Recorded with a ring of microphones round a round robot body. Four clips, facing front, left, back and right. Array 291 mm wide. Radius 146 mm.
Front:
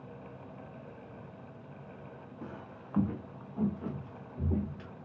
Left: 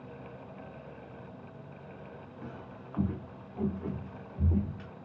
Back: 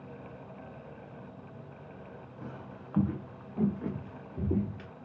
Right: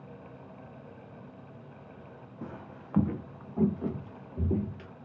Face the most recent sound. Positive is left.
turn(degrees=-125)